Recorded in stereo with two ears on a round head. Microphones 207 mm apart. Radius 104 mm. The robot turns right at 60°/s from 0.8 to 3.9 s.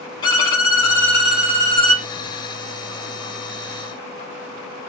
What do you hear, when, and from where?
0.2 s a violin: 150° left, 1.4 m; by 2.0 s 135° right, 1.4 m